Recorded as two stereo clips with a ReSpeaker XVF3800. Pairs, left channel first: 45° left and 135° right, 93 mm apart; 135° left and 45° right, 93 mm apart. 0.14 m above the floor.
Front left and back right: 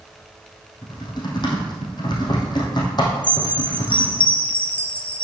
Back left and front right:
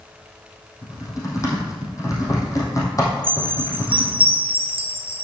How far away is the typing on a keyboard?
About 3 m.